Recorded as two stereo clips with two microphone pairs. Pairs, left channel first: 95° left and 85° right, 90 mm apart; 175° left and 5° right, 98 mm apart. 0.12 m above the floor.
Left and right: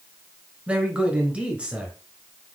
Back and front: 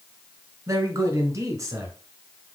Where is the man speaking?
20° right, 1.2 m.